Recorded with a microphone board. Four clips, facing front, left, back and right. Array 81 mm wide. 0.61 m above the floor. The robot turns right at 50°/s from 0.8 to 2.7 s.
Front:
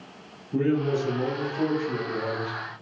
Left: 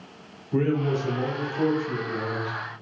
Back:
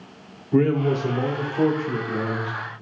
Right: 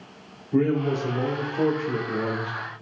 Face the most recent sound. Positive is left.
turn(degrees=-100)